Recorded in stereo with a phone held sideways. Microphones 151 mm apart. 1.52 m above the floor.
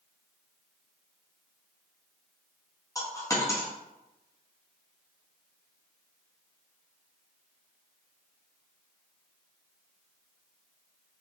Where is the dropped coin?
20° left (ahead or behind), 0.9 m.